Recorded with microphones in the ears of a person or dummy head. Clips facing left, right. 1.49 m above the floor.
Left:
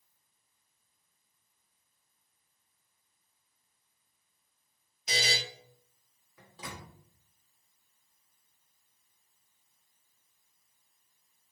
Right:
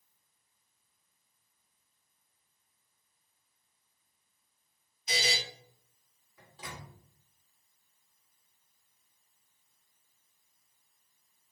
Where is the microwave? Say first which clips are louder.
Left 1 dB; 75° left (ahead or behind), 1.9 m.